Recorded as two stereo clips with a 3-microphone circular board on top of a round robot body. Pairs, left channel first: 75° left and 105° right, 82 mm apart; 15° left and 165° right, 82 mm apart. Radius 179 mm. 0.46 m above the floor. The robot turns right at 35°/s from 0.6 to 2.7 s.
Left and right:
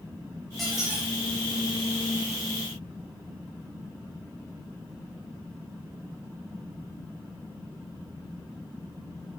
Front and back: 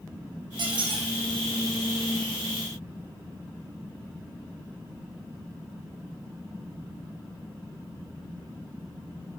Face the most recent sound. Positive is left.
turn(degrees=-125)